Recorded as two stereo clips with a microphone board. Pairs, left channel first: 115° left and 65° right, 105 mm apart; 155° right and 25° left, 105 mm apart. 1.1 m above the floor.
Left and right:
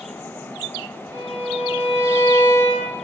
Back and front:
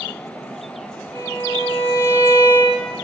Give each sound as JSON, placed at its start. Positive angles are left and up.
{"t": 1.1, "sound": "a violin", "azimuth_deg": -135, "distance_m": 1.3}